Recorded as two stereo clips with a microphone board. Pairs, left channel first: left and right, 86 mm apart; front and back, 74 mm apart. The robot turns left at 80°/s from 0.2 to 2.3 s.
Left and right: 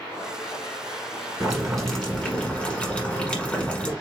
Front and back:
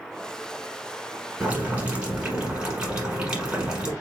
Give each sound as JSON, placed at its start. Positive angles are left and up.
{"t": 1.4, "sound": "boiling", "azimuth_deg": -155, "distance_m": 1.5}